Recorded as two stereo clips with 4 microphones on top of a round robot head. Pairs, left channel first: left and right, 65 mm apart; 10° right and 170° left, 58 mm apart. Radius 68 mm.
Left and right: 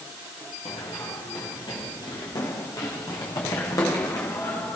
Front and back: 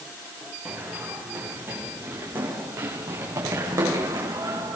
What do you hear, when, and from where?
0.7 s running footsteps: 100° left, 8.5 m; by 4.8 s 130° left, 9 m